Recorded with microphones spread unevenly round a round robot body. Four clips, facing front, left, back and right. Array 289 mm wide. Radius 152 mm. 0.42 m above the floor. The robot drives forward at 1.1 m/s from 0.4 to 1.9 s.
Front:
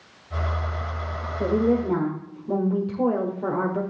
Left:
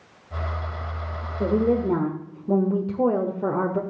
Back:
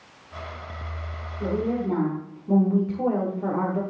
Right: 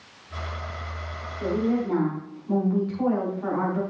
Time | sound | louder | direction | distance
1.4 | a woman speaking | left 4 dB, front 4 dB | 50° left | 1.6 m